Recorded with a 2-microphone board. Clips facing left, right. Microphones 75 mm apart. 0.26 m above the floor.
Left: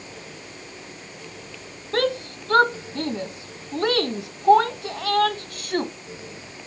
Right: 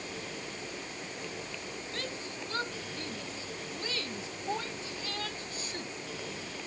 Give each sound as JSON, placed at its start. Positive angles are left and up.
{"t": 1.9, "sound": "a shout", "side_deg": 70}